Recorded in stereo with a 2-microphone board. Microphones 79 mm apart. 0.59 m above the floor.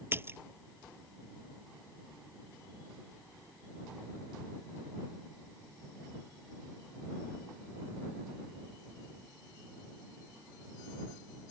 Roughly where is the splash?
Right.